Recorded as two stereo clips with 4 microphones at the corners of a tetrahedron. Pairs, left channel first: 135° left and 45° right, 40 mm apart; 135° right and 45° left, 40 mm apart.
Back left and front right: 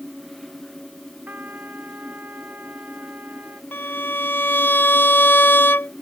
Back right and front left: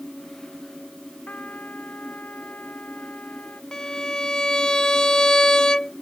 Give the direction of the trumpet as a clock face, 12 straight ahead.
3 o'clock.